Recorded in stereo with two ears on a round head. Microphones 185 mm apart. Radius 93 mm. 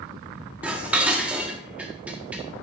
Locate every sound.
0.6 s dishes clattering: 5° right (ahead or behind), 1.5 m